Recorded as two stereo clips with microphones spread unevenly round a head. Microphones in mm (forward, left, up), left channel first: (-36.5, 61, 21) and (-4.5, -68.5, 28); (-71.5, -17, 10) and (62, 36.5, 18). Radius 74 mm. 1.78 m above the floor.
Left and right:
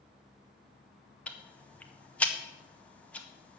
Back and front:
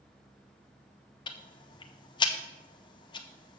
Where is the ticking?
Straight behind, 0.7 m.